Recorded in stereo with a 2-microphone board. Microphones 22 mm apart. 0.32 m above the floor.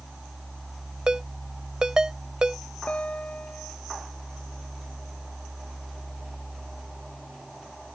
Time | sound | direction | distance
1.1 | a ringtone | 35° right (ahead or behind) | ?
2.9 | a guitar | 80° left | ?